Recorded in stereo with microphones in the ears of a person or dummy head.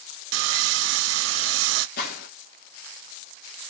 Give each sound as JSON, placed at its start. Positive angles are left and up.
{"t": 0.3, "sound": "sawing", "side_deg": -85, "distance_m": 0.5}
{"t": 2.0, "sound": "a gunshot", "side_deg": 55, "distance_m": 3.5}